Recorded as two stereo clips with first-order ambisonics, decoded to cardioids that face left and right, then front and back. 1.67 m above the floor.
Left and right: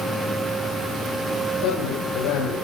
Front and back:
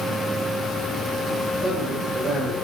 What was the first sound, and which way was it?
A man speaking, 100° left.